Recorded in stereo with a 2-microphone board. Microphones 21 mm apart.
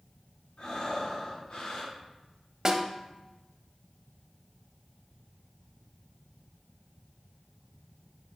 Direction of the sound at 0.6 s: 50° left (ahead or behind).